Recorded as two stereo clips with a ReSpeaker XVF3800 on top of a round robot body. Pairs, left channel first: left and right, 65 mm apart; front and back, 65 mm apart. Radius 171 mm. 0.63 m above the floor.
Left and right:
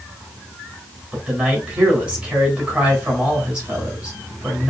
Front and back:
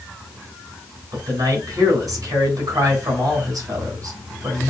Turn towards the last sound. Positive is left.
turn(degrees=-160)